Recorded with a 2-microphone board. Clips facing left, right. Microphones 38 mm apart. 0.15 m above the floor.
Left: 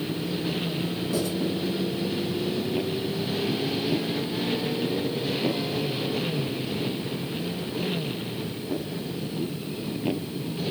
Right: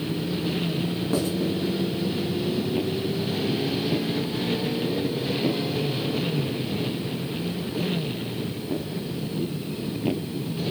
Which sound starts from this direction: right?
Writing, at 1.1 s.